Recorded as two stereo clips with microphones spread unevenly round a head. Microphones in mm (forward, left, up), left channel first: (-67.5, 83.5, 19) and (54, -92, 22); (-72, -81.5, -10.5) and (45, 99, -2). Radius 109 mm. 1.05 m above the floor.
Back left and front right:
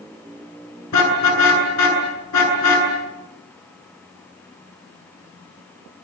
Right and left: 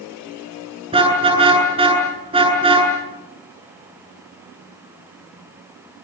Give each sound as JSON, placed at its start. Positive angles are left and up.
{"t": 0.9, "sound": "a car horn", "azimuth_deg": 125, "distance_m": 9.0}